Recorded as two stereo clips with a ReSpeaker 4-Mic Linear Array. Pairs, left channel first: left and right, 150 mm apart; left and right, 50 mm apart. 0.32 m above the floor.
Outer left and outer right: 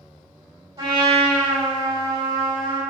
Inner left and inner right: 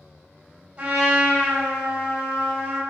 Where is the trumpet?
25° right (ahead or behind), 1.7 m.